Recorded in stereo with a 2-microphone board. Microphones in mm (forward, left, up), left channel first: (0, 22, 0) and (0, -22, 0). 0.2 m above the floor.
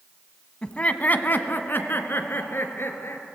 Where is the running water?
No running water in this recording.